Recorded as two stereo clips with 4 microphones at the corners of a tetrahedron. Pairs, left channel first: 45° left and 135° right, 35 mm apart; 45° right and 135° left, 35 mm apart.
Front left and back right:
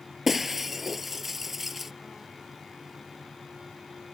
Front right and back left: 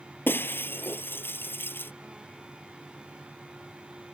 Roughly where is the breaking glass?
Ahead right.